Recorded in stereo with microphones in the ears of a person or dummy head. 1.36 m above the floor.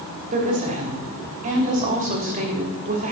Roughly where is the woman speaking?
Right.